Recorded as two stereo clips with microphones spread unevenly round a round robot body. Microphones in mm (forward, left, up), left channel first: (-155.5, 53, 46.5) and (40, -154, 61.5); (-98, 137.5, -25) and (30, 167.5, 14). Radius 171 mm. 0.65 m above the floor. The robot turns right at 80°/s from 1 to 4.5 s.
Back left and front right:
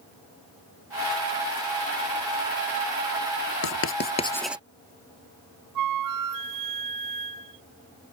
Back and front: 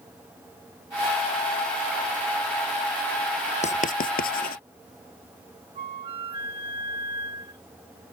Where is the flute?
60° right.